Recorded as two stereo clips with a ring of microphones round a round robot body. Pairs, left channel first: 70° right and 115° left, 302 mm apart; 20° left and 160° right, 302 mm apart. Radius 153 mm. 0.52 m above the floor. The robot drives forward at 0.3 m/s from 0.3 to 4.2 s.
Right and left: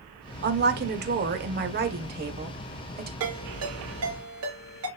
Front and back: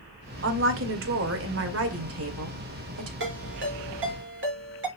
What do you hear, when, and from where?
0.4 s a woman speaking: 160° left, 1.6 m; by 3.1 s 170° left, 2.5 m
3.2 s a ringtone: 150° left, 4 m; by 4.9 s 155° left, 4 m